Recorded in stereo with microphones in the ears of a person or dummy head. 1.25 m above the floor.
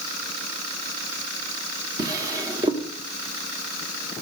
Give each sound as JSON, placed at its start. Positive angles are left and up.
{"t": 2.0, "sound": "a drawer", "side_deg": -20, "distance_m": 1.7}